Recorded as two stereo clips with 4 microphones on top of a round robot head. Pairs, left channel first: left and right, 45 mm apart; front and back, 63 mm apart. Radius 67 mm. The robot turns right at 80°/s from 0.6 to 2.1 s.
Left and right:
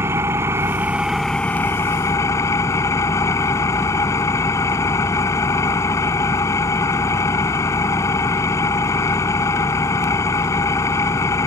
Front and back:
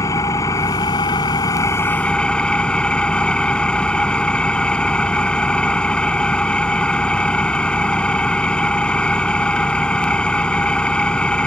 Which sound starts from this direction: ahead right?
An engine running, at 0.0 s.